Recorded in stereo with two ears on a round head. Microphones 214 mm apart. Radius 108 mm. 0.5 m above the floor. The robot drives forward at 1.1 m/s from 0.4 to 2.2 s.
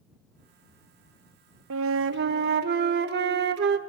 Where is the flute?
60° right (ahead or behind), 0.6 m; by 3.8 s 45° right (ahead or behind), 0.7 m.